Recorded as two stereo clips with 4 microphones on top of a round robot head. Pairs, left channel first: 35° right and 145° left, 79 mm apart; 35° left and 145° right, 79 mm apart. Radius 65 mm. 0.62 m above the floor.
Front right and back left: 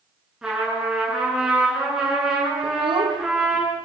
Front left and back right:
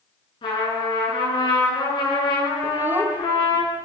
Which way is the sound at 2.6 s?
150° left.